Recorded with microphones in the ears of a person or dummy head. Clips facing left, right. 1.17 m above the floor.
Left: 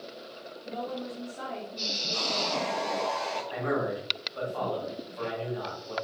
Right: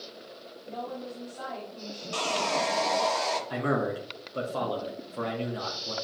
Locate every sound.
0.7 s a woman speaking: 30° left (ahead or behind), 3 m
2.1 s sawing: 80° right, 1.7 m
3.5 s a man speaking: 50° right (ahead or behind), 1.9 m